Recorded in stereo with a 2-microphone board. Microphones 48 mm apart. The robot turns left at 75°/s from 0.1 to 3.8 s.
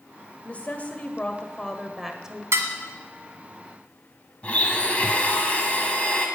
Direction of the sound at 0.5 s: 110° left.